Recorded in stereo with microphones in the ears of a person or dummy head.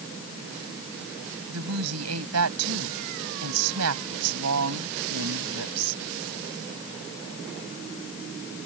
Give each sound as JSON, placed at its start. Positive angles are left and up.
{"t": 1.5, "sound": "a woman speaking", "side_deg": -75}